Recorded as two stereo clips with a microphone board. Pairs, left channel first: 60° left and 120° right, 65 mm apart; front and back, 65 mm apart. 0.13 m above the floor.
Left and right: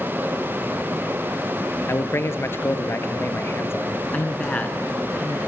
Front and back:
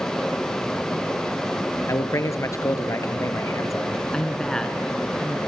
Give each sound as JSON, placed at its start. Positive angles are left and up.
{"t": 1.9, "sound": "a man speaking", "azimuth_deg": 20, "distance_m": 2.5}
{"t": 4.1, "sound": "a man speaking", "azimuth_deg": 60, "distance_m": 1.5}